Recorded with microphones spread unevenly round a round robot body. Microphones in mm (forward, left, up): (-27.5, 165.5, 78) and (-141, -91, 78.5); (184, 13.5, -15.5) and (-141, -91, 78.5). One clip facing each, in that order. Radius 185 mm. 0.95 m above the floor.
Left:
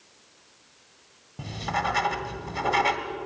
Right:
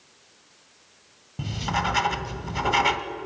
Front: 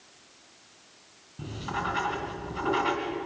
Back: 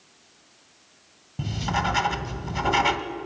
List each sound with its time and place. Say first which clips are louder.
1.4 s writing: right 2 dB, back 5 dB; 175° left, 1.8 m